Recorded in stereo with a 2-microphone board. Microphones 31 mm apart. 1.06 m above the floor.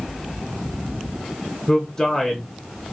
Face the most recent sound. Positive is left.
turn(degrees=30)  # may be behind; listen again after turning